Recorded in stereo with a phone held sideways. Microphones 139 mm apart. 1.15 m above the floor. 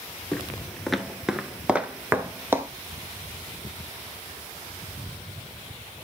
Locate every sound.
0.3 s footsteps: 5° left (ahead or behind), 1.2 m; by 2.7 s 20° right (ahead or behind), 1.2 m